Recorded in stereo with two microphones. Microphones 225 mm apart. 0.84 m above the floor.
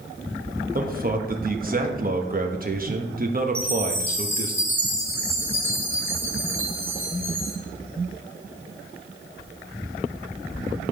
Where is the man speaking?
40° right (ahead or behind), 0.9 m.